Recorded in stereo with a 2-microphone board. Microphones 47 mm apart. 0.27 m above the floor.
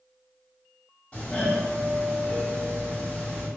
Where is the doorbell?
20° left (ahead or behind), 1.6 m.